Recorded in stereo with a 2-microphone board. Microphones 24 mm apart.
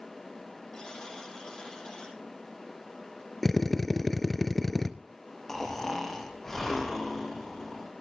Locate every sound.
0.7 s a buzzer: 30° left (ahead or behind), 6.5 m
3.4 s a drill: 15° left (ahead or behind), 0.9 m
5.5 s snoring: 15° left (ahead or behind), 4 m